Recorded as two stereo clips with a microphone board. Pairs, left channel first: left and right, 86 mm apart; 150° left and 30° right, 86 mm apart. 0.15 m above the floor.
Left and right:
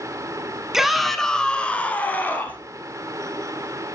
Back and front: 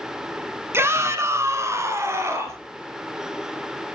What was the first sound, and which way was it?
A shout, 10° right.